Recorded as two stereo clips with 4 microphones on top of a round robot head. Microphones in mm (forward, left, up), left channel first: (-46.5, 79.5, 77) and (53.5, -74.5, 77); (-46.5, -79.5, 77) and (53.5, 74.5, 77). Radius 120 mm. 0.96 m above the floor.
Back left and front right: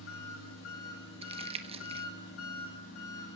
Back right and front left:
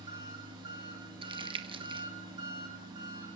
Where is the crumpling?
5° right, 1.1 m.